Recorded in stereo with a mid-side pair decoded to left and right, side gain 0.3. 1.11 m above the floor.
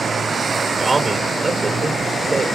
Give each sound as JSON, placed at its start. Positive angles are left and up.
{"t": 0.8, "sound": "a man speaking", "azimuth_deg": -30, "distance_m": 3.5}